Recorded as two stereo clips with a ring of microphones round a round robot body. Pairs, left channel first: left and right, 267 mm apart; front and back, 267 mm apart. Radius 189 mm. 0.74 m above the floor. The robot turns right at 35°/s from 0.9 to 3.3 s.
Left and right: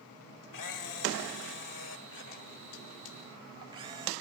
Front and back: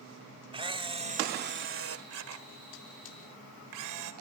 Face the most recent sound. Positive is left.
turn(degrees=-170)